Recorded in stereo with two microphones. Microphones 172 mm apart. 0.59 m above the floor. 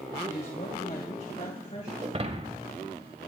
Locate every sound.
0.2 s a woman speaking: 50° left (ahead or behind), 1.9 m; by 1.9 s 45° left (ahead or behind), 3 m
2.0 s breaking glass: 40° right (ahead or behind), 1.2 m